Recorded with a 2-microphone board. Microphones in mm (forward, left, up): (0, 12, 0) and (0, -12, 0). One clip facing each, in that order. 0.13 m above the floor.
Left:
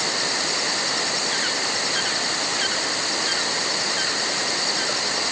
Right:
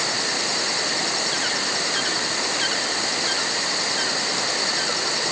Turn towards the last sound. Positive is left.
No sound to turn to.